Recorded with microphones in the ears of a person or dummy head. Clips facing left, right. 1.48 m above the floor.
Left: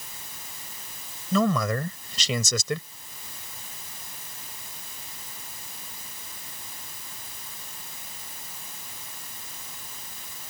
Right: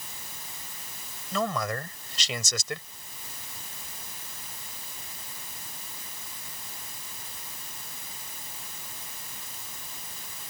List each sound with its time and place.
1.3 s a man speaking: 85° left